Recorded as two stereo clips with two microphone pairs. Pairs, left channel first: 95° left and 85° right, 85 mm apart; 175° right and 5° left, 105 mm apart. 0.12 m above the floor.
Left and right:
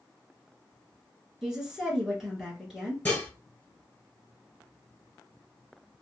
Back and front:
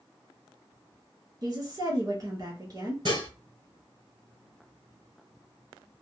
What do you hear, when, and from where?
1.4 s a woman speaking: 5° right, 1.5 m
3.0 s dishes clattering: 30° left, 1.5 m